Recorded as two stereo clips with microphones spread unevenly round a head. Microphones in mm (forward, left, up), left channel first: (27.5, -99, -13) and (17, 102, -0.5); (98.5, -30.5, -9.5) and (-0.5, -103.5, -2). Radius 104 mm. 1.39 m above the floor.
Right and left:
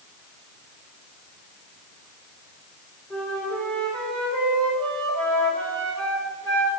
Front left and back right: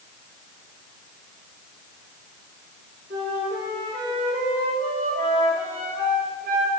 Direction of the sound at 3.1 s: 175° right.